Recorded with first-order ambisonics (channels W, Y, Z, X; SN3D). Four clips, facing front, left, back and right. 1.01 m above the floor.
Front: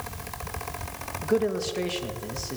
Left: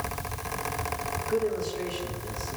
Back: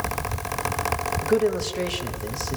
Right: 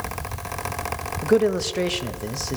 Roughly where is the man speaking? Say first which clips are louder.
Right 10 dB, back 2 dB; right.